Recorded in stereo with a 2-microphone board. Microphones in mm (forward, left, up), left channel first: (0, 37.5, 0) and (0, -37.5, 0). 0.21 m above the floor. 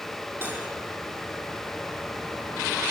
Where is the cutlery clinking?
30° right (ahead or behind), 4.5 m.